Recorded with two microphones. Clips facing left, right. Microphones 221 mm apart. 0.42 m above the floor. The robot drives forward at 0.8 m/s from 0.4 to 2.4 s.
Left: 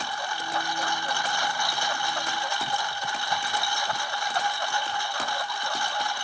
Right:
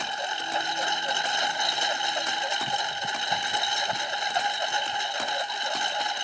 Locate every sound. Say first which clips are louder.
0.0 s a lawn mower: even; 20° right (ahead or behind)